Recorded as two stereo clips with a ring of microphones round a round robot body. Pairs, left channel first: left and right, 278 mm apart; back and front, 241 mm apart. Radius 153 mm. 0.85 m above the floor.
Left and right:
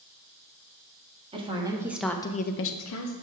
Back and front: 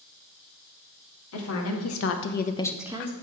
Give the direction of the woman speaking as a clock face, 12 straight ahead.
5 o'clock.